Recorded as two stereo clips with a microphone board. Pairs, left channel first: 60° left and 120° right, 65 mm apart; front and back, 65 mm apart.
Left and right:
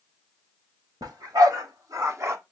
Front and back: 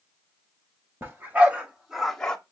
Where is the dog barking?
125° right, 1.3 m; by 2.4 s 80° right, 1.0 m.